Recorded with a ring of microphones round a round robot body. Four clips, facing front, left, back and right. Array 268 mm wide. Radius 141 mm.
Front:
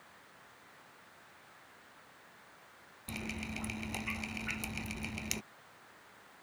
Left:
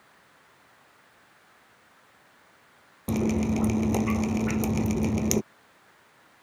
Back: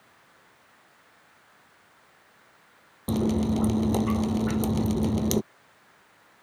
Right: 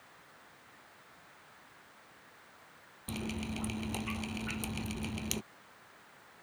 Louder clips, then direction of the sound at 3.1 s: Left 14 dB, back 18 dB; 145° left.